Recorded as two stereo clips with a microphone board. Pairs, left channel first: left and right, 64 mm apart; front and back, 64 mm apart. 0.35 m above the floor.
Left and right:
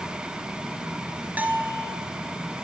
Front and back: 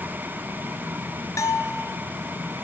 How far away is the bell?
About 0.8 m.